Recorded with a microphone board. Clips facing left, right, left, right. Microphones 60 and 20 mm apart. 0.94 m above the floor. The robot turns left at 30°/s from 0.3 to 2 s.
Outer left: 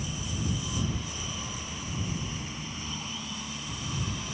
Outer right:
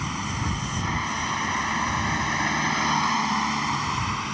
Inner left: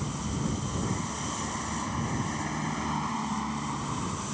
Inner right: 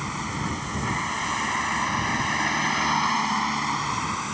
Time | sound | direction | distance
0.0 | a vehicle | 75° right (ahead or behind) | ?